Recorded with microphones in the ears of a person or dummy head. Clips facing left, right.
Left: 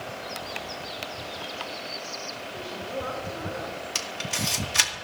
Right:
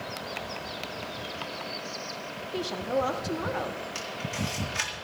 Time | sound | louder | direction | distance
2.5 | a woman speaking | right 7 dB | 80° right | 1.6 m
4.0 | a camera shutter | even | 75° left (ahead or behind) | 2 m